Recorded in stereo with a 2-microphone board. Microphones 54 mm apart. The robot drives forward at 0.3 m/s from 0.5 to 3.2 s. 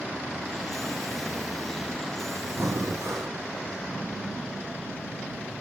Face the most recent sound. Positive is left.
turn(degrees=-65)  # may be behind; listen again after turning